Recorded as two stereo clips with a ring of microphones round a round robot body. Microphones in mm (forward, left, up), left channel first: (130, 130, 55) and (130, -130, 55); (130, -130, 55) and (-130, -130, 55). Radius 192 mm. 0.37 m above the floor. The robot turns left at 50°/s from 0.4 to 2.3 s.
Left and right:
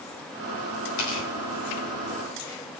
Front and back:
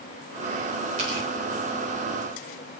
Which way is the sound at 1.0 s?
110° left.